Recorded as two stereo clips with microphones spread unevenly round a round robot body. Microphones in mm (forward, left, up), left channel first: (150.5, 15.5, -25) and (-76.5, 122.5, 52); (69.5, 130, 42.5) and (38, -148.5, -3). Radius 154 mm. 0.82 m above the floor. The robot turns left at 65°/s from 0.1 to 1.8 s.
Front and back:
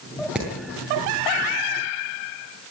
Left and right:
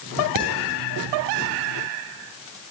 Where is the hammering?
120° right, 8.5 m; by 0.5 s 125° right, 8.5 m.